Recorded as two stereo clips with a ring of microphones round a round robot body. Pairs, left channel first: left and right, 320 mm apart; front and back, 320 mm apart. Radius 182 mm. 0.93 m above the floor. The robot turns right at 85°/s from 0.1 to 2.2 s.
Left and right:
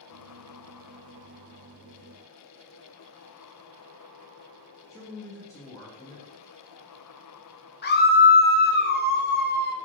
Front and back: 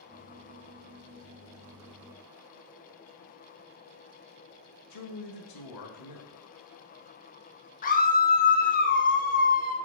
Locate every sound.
4.9 s a man speaking: 10° left, 1.0 m
7.8 s a scream: 50° left, 0.9 m